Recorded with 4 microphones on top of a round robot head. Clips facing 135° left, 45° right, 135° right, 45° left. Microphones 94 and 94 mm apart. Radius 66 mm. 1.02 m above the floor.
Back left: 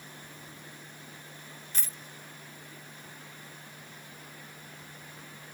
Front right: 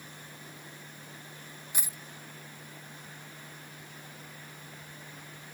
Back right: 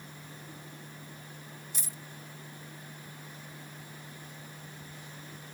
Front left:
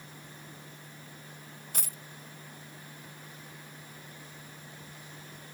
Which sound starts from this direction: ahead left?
A dropped coin, at 1.7 s.